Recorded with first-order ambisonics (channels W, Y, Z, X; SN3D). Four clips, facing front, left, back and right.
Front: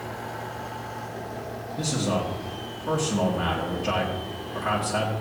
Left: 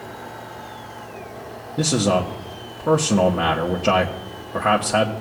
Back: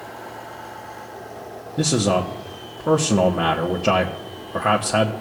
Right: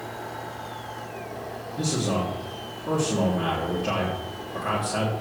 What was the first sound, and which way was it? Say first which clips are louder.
A man speaking: left 7 dB, back 7 dB; 140° left.